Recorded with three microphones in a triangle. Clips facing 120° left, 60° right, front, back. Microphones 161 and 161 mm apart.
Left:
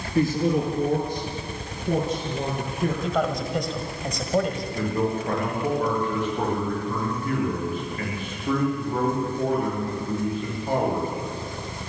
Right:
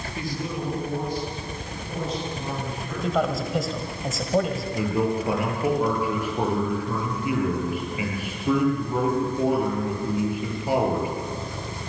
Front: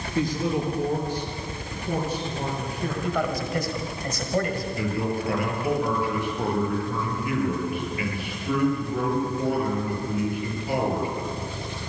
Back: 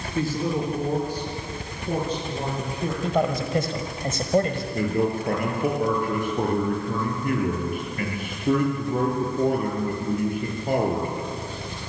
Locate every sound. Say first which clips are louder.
0.1 s a man speaking: left 10 dB, even; 95° left, 5.5 m; by 2.9 s 110° left, 7.5 m
3.0 s a man speaking: even, back 4 dB; 145° right, 1.5 m
4.7 s a man speaking: right 2 dB, back 6 dB; 140° right, 7 m